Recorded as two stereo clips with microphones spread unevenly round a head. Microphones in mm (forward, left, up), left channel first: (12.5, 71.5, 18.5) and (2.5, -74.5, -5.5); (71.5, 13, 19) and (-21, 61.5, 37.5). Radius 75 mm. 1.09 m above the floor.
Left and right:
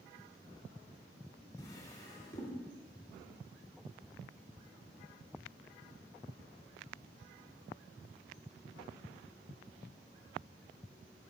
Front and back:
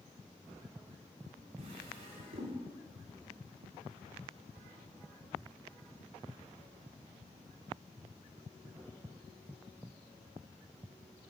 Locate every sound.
1.6 s a drawer: 150° left, 2 m